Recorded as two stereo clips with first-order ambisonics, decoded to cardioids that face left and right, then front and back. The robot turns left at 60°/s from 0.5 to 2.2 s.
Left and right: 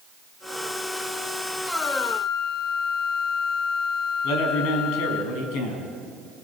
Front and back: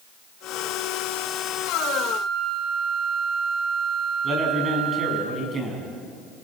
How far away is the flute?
About 1.8 m.